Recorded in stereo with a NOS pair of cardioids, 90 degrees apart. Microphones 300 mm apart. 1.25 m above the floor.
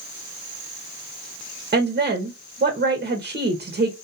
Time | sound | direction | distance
1.7 | a woman speaking | 35° right | 1.4 m